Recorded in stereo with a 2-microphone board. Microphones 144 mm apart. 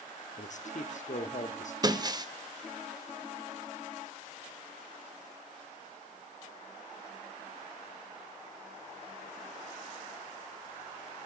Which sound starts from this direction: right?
Breaking glass, at 1.8 s.